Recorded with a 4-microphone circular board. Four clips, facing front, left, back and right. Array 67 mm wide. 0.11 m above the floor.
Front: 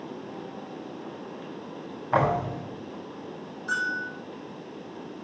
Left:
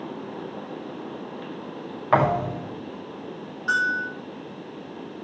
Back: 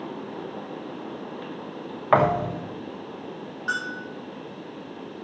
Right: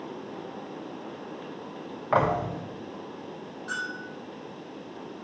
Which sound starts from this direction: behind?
A thud, at 2.1 s.